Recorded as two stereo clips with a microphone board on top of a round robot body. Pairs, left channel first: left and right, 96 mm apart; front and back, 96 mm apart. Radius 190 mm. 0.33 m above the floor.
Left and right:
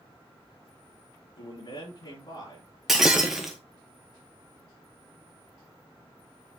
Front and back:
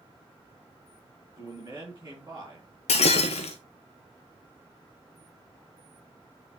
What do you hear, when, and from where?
1.4 s a man speaking: 120° left, 5 m
2.9 s breaking glass: 5° right, 0.7 m